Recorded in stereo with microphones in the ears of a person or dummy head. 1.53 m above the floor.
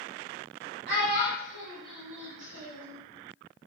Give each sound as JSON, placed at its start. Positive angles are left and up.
{"t": 0.9, "sound": "a child speaking", "side_deg": -70, "distance_m": 0.9}